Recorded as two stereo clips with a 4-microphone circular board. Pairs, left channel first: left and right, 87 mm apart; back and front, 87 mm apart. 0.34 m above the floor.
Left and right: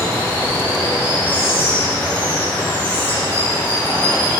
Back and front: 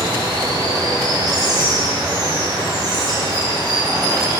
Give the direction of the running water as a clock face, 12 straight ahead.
11 o'clock.